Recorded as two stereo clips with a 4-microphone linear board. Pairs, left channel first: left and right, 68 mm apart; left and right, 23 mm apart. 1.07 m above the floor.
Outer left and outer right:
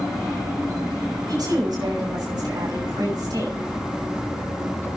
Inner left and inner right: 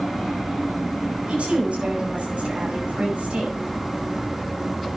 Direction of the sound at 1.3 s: 80° right.